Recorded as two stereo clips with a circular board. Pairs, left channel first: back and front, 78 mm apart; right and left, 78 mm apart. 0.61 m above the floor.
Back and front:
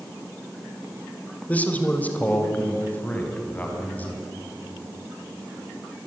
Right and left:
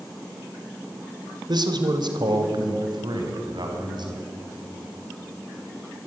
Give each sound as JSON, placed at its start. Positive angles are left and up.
{"t": 1.5, "sound": "a man speaking", "azimuth_deg": 110, "distance_m": 2.0}